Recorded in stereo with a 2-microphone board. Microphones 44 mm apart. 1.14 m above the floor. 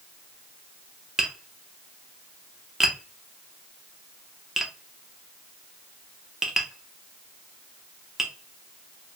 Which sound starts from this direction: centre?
Tapping, at 1.2 s.